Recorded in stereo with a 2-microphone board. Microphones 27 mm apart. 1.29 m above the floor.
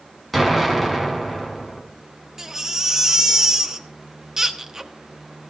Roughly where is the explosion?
Centre.